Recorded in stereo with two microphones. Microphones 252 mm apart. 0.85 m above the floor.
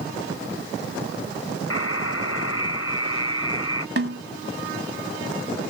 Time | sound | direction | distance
1.7 | a buzzer | 65° left (ahead or behind) | ?
4.0 | a snare drum | 55° right (ahead or behind) | ?